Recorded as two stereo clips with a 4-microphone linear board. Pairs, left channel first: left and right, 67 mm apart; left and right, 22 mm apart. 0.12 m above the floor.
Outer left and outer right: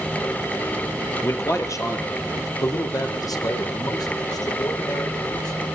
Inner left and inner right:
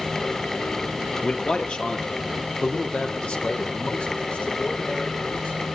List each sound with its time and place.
1.2 s a man speaking: 40° left (ahead or behind), 2 m; by 5.7 s 70° left (ahead or behind), 7.5 m